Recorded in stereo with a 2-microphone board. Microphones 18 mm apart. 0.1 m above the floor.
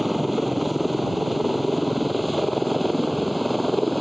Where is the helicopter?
Centre (ahead or behind); by 4.0 s 5° left (ahead or behind).